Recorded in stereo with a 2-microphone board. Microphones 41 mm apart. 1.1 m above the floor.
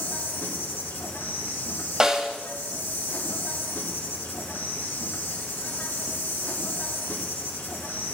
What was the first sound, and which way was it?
An insect, 60° left (ahead or behind).